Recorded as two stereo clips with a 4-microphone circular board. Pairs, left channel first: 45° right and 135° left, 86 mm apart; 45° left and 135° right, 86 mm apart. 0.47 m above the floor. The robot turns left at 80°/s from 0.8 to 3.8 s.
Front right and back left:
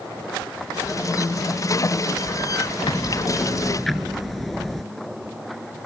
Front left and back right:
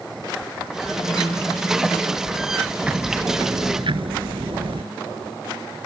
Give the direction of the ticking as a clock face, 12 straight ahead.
2 o'clock.